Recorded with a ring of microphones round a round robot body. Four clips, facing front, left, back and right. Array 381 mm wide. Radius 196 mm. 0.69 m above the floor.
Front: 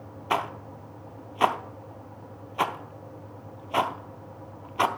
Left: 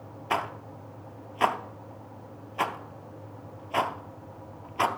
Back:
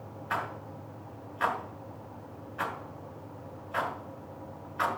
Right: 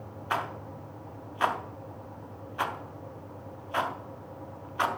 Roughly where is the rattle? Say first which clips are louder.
Left 2 dB, front 6 dB; ahead left.